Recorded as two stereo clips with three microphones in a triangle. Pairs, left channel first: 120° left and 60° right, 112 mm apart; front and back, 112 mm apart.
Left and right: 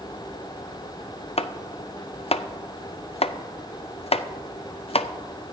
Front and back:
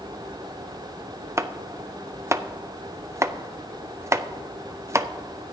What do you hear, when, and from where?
1.4 s chopping: 115° left, 0.5 m